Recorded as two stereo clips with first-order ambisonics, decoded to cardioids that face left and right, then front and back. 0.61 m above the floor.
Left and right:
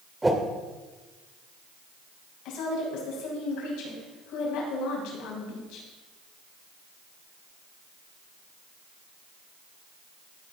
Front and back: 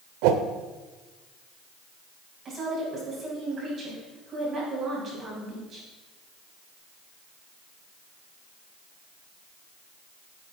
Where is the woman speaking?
115° left, 5 m.